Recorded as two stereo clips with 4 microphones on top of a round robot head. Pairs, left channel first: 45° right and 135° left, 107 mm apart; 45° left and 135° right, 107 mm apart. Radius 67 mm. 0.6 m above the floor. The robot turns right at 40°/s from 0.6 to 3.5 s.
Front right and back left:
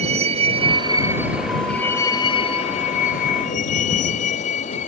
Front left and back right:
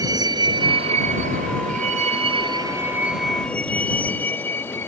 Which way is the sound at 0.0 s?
165° left.